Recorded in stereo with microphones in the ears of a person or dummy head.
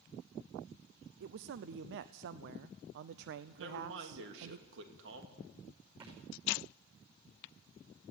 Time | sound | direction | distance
1.2 | a man speaking | 65° right (ahead or behind) | 0.5 m
3.6 | a man speaking | 65° right (ahead or behind) | 2.5 m
6.0 | a thud | 35° right (ahead or behind) | 6.5 m